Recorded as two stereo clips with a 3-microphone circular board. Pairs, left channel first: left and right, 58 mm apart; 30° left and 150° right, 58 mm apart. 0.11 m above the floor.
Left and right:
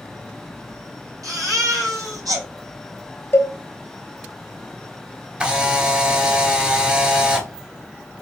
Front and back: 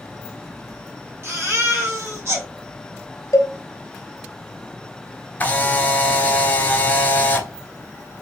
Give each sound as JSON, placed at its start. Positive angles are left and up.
{"t": 1.2, "sound": "a baby crying", "azimuth_deg": -100, "distance_m": 2.0}
{"t": 3.3, "sound": "a cowbell", "azimuth_deg": 50, "distance_m": 0.8}
{"t": 5.4, "sound": "a camera shutter", "azimuth_deg": -20, "distance_m": 0.8}